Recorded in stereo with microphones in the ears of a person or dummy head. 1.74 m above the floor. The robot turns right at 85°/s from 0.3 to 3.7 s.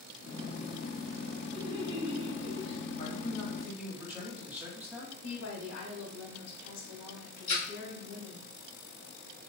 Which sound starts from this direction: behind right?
Laughter, at 1.5 s.